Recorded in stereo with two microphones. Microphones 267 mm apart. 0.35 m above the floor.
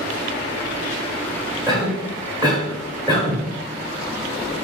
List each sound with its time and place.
1.7 s a cough: 15° right (ahead or behind), 1.0 m